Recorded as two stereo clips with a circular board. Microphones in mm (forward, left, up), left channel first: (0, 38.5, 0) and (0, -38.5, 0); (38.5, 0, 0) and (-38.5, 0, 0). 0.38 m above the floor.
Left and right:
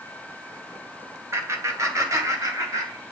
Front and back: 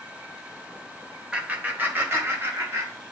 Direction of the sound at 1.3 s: 115° right.